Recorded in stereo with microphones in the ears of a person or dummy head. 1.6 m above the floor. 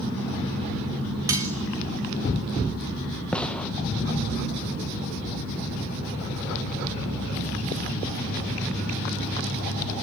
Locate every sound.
1.3 s cutlery clinking: 10° right (ahead or behind), 1.0 m
3.3 s a gunshot: 5° left (ahead or behind), 1.4 m